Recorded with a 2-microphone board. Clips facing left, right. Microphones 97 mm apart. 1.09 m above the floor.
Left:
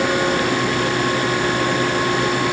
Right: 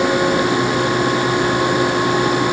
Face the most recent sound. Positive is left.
No sound to turn to.